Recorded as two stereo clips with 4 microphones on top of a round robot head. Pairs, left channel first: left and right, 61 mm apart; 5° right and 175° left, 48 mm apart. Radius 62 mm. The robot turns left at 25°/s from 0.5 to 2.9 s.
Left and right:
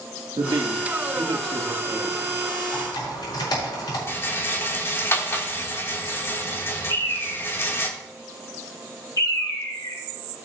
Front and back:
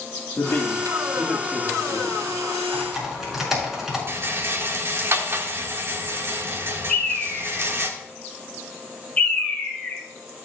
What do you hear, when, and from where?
0.4 s a man speaking: 65° right, 1.7 m; by 2.5 s 115° right, 1.7 m
2.7 s typing on a keyboard: 95° left, 5.5 m; by 4.0 s 90° left, 5.5 m
4.1 s a rattle: 140° left, 1.7 m
6.9 s a bird: 60° left, 3 m